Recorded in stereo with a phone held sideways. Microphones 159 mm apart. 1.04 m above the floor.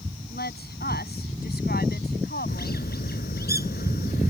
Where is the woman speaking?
85° left.